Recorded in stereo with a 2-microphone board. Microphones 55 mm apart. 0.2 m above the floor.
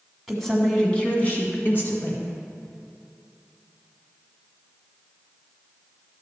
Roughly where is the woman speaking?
Centre.